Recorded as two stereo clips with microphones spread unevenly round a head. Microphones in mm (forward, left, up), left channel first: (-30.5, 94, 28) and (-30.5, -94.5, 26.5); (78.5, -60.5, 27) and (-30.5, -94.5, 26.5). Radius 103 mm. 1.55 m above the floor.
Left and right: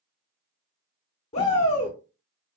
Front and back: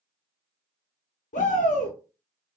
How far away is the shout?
About 0.6 m.